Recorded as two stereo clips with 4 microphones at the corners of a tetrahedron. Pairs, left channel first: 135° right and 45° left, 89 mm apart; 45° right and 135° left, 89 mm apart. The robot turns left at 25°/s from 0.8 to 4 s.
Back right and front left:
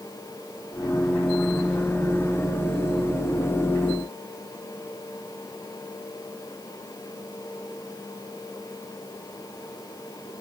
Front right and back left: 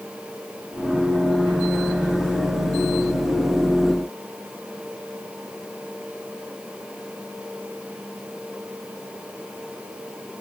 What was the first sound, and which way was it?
Only background noise.